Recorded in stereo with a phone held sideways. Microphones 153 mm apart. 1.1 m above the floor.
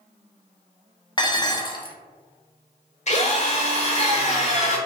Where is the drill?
50° left (ahead or behind), 0.9 m.